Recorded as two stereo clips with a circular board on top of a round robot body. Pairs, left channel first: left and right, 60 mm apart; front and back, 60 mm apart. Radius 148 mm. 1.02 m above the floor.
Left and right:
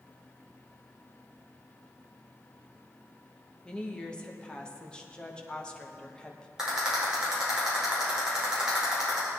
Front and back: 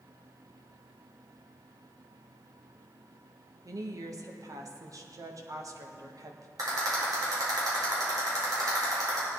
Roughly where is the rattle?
Behind.